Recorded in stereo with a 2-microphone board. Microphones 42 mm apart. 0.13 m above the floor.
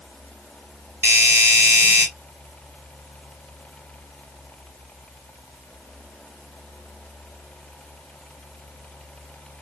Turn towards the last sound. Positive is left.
turn(degrees=-55)  # may be behind; listen again after turning